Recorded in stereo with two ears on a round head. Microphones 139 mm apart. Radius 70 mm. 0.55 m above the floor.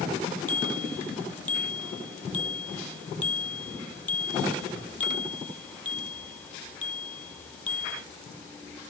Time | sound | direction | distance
0.5 | a bicycle bell | 10° left (ahead or behind) | ?